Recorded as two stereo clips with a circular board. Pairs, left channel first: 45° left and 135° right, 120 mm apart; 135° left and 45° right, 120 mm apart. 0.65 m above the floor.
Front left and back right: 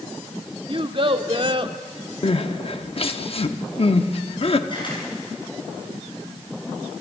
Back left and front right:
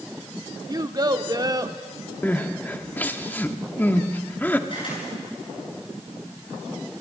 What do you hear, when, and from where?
0.7 s a child speaking: 100° right, 1.2 m
2.2 s crying: 65° left, 1.0 m
4.7 s a camera shutter: 90° left, 8.5 m